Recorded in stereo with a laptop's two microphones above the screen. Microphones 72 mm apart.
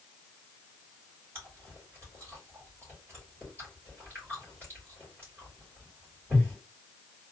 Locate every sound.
1.4 s chewing: 35° right (ahead or behind), 2.5 m